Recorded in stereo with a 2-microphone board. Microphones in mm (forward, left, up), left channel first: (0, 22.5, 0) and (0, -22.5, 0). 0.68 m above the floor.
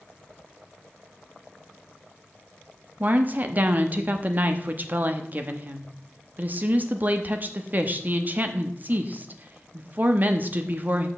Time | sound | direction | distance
3.0 | a woman speaking | 35° right (ahead or behind) | 0.9 m